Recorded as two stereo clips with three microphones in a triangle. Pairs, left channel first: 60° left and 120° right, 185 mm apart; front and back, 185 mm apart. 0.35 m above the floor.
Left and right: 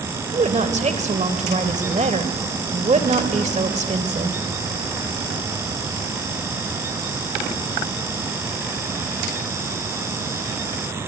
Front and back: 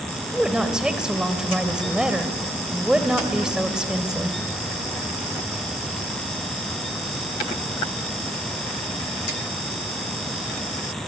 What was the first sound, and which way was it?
A woman speaking, 95° right.